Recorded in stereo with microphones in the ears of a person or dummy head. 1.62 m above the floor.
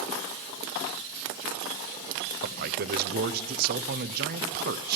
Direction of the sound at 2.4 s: 55° right (ahead or behind).